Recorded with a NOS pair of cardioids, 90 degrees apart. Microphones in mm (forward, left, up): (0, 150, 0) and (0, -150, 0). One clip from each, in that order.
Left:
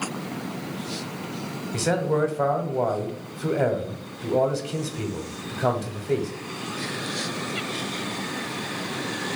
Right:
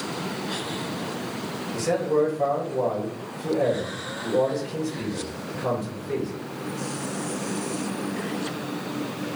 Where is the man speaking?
60° left, 0.8 m.